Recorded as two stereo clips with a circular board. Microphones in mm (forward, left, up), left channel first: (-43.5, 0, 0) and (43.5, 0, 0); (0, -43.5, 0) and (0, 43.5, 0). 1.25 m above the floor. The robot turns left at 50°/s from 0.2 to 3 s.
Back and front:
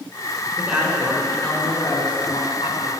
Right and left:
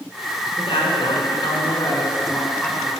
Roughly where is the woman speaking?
Right.